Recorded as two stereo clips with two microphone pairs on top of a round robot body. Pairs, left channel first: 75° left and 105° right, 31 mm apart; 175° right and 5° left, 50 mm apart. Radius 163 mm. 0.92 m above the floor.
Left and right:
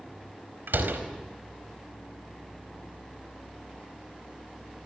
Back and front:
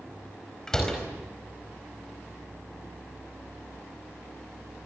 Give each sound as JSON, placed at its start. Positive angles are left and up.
{"t": 0.7, "sound": "a door slam", "azimuth_deg": -95, "distance_m": 4.5}